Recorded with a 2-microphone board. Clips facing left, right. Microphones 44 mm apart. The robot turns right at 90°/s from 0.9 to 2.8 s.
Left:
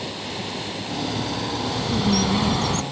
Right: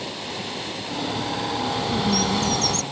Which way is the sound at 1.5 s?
20° right (ahead or behind).